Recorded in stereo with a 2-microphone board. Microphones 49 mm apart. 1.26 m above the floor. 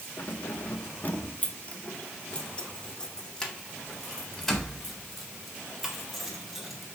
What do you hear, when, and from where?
0.2 s keys jangling: 55° left (ahead or behind), 1.6 m; by 6.9 s centre (ahead or behind), 5 m